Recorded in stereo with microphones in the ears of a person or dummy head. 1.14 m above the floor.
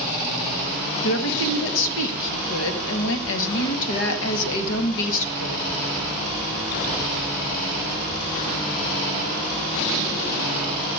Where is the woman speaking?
70° left (ahead or behind), 1.2 m.